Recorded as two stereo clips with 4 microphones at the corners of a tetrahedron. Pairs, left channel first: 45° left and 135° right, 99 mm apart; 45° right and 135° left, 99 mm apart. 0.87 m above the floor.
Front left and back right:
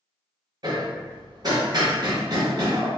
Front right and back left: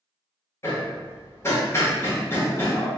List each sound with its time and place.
0.6 s hammering: 100° right, 0.8 m